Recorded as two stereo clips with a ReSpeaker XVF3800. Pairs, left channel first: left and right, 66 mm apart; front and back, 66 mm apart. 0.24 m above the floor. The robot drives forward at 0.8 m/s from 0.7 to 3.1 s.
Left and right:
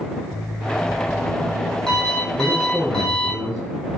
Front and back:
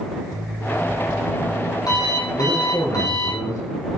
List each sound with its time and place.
0.3 s an alarm clock: 10° left, 6.5 m
2.4 s a man speaking: 10° right, 4 m